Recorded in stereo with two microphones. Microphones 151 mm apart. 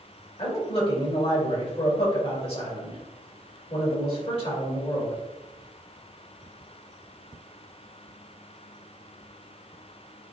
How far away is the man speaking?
About 3 m.